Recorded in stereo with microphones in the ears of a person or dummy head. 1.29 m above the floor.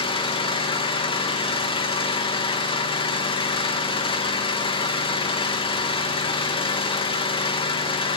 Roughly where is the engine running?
Left.